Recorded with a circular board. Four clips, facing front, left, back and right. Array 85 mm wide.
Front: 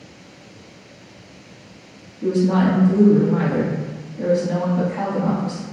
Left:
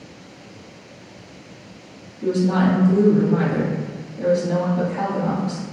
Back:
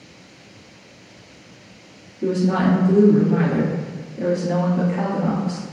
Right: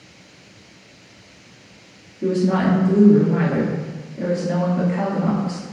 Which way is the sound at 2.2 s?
120° right.